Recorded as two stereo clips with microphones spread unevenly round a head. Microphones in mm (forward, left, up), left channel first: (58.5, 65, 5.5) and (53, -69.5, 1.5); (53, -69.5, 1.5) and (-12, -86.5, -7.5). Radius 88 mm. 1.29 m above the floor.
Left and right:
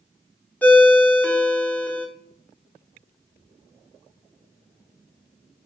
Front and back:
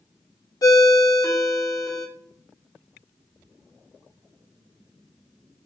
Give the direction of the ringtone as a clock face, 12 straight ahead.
12 o'clock.